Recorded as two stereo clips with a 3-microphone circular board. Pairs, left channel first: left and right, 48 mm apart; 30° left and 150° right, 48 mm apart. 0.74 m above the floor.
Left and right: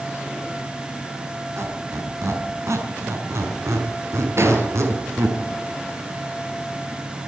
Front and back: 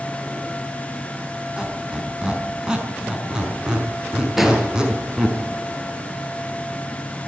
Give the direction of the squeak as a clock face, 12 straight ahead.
3 o'clock.